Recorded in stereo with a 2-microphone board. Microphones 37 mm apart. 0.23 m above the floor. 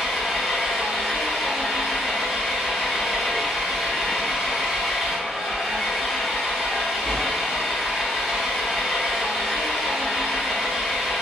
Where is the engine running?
5° right (ahead or behind), 1.4 m.